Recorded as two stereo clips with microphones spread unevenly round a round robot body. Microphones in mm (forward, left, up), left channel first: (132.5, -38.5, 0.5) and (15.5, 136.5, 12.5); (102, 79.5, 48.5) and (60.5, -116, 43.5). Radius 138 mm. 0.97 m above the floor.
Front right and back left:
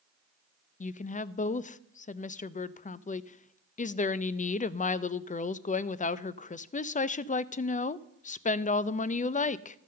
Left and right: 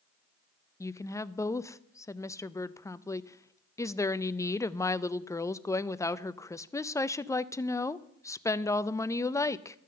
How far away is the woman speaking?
About 0.5 m.